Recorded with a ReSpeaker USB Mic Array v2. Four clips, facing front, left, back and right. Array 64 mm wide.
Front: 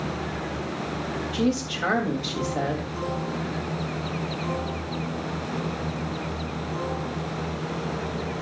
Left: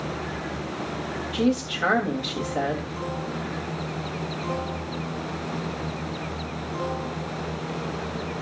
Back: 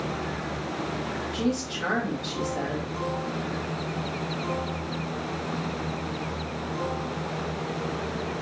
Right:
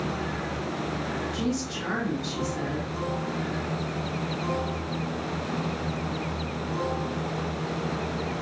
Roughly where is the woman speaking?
Left.